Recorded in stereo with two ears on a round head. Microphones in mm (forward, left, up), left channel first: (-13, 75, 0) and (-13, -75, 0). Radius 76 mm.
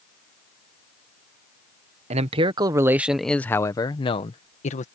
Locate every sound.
2.1 s a man speaking: 40° right (ahead or behind); by 4.8 s 45° left (ahead or behind)